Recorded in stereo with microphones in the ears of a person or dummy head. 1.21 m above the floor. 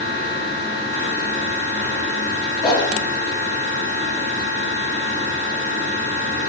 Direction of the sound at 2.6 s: 20° left (ahead or behind).